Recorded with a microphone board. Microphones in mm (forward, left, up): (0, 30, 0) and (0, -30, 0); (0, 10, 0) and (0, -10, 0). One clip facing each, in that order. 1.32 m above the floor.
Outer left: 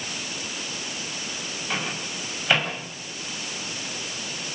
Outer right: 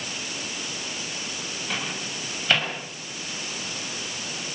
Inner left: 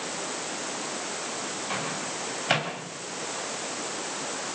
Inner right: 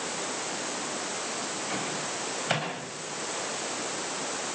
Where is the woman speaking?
I don't hear a woman speaking.